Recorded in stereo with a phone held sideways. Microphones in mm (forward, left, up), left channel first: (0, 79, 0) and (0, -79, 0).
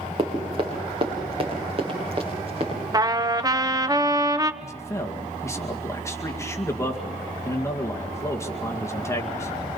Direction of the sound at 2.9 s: 25° right (ahead or behind).